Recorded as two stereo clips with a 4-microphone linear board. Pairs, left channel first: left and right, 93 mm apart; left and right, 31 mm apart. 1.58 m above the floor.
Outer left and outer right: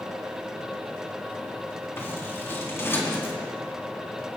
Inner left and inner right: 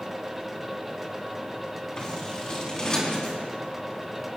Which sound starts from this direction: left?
Scissors, at 2.0 s.